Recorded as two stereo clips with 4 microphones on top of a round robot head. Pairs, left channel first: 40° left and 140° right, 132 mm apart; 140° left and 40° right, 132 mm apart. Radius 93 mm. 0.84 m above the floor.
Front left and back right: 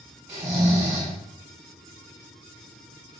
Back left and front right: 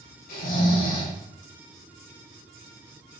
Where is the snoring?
155° left, 4.5 m.